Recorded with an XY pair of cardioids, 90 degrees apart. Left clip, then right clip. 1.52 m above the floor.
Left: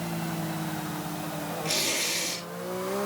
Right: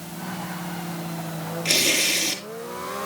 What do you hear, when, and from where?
1.6 s tearing paper: 70° right, 7 m